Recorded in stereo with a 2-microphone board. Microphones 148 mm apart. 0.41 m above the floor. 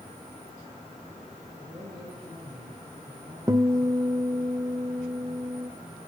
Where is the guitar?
25° right (ahead or behind), 1.0 m.